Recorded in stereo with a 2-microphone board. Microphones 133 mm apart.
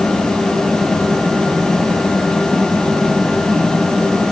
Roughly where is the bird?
I don't hear a bird.